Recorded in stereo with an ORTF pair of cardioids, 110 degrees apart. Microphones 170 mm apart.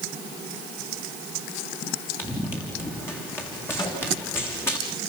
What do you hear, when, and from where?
2.2 s running footsteps: 15° left, 6.5 m
3.8 s a microwave: 25° left, 8.5 m